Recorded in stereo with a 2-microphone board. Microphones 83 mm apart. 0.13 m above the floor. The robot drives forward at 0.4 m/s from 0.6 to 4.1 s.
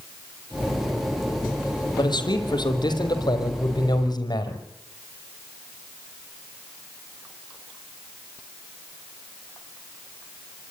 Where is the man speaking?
60° left (ahead or behind), 4 m; by 4.6 s 55° left (ahead or behind), 4.5 m.